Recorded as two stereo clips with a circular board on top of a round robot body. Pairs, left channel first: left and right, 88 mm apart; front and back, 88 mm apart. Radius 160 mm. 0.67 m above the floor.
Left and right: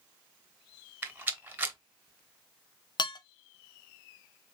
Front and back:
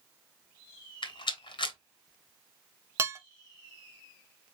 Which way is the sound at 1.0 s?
20° right.